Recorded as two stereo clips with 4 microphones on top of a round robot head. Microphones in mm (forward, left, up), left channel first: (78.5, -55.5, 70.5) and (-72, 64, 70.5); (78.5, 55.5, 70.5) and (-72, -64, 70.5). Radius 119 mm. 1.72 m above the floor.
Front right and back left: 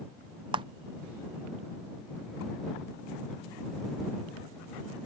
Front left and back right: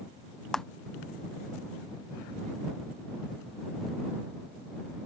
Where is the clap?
120° left.